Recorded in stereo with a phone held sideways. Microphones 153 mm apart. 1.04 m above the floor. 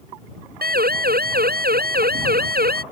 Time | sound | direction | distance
0.6 | a siren | 80° right | ?